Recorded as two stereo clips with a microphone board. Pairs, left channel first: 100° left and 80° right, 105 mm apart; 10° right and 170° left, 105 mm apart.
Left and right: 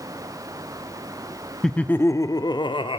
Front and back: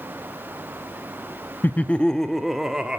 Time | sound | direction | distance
1.6 | laughter | 25° left | 0.6 m